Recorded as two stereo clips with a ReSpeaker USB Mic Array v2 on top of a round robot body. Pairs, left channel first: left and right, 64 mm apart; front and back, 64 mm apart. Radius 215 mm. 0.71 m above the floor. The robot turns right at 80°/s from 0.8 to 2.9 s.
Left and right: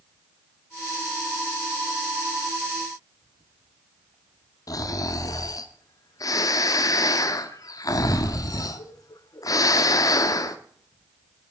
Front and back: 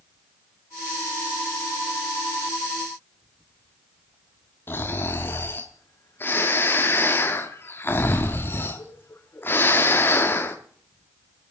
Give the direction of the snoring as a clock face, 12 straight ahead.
10 o'clock.